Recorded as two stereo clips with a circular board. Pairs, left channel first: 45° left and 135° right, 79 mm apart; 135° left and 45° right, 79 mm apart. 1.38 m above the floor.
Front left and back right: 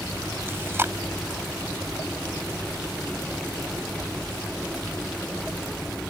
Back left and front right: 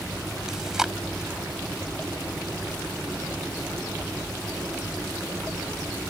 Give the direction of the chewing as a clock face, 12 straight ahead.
4 o'clock.